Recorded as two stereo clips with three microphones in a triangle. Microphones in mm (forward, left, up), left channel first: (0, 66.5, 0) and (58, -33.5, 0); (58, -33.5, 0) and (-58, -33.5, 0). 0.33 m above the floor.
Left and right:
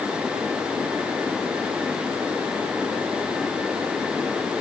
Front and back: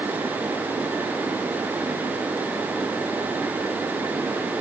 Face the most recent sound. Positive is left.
No sound to turn to.